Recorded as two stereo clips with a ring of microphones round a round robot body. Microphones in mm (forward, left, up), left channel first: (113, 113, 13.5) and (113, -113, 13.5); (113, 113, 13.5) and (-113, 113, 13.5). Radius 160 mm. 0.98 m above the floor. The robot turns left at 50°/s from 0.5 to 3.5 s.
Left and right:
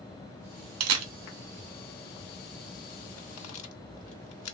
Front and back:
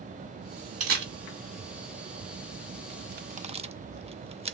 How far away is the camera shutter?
About 0.6 m.